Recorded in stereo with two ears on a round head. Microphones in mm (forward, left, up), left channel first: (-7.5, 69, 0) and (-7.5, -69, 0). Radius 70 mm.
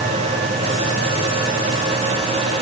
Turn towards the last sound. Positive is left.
No sound to turn to.